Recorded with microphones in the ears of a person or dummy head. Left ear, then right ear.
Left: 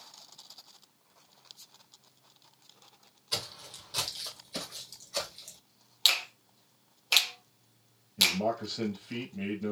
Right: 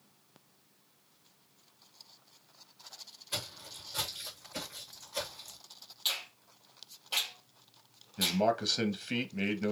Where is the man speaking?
50° right (ahead or behind), 0.8 m.